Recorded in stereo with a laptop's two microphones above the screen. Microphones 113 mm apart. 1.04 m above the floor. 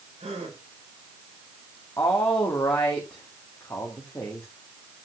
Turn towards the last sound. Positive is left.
turn(degrees=25)  # may be behind; listen again after turning